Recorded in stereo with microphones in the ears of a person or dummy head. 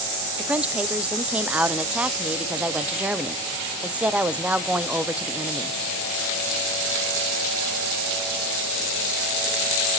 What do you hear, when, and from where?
0.4 s a woman speaking: 5° right (ahead or behind), 0.6 m